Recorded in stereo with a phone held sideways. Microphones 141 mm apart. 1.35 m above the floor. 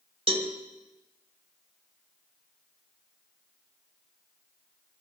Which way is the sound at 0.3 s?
45° right (ahead or behind).